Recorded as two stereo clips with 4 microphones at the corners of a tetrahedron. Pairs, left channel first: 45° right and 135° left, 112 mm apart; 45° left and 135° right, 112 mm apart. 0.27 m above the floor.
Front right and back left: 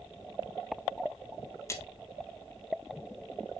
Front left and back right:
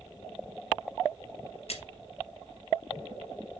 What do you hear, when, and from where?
1.7 s a splash: 20° left, 1.9 m